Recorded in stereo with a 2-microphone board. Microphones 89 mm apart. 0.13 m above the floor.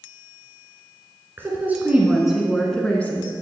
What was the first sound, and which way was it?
A woman speaking, 25° right (ahead or behind).